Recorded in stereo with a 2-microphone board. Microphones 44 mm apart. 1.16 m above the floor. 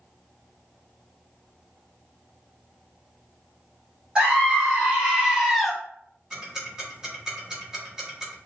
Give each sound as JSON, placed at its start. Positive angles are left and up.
{"t": 4.2, "sound": "a scream", "side_deg": -20, "distance_m": 2.5}
{"t": 6.3, "sound": "ticking", "side_deg": -15, "distance_m": 1.5}